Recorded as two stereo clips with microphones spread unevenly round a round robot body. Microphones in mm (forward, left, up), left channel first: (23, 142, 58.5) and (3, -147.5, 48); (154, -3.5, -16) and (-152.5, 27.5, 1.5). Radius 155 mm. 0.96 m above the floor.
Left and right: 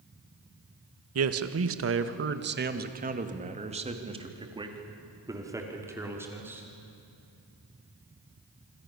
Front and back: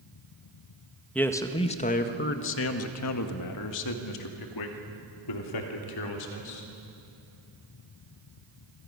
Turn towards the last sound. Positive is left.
turn(degrees=-10)